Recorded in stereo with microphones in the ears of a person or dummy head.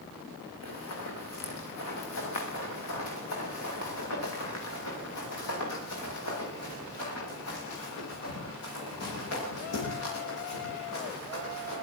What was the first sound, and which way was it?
Running footsteps, 80° left.